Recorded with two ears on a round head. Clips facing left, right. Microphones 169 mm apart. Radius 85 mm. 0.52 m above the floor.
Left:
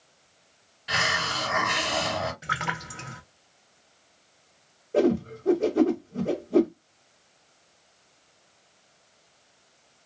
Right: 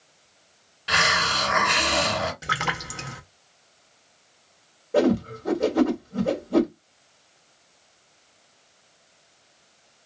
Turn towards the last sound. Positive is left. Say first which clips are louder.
# right 2 dB
turn(degrees=-70)  # may be behind; listen again after turning